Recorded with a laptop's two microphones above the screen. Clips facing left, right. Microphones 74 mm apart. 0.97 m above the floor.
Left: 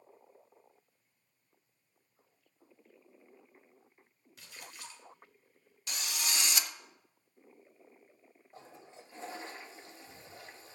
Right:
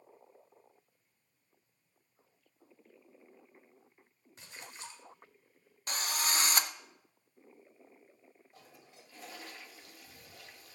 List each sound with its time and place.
4.4 s a splash: 30° right (ahead or behind), 2.5 m
5.9 s a drill: 40° right (ahead or behind), 0.6 m
8.5 s a toilet flushing: 30° left (ahead or behind), 0.5 m